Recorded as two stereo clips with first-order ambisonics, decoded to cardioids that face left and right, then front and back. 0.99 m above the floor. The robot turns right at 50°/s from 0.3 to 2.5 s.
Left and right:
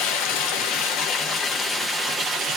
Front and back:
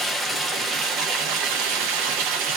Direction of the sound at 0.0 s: 100° left.